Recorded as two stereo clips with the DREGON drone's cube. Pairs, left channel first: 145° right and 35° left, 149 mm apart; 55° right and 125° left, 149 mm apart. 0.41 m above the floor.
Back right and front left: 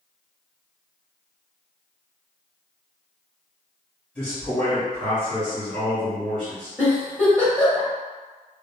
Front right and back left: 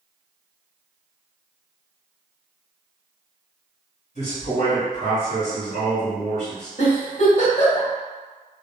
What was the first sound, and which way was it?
A man speaking, 65° right.